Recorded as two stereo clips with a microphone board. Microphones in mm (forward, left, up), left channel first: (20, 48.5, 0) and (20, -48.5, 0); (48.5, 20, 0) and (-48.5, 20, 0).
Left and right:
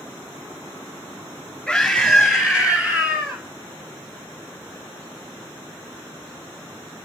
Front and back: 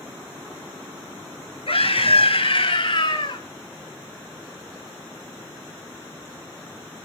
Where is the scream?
5° left, 4.5 m; by 3.4 s 30° right, 3 m.